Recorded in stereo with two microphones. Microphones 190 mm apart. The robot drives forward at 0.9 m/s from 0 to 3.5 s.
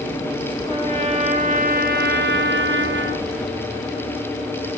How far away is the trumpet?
About 2.5 m.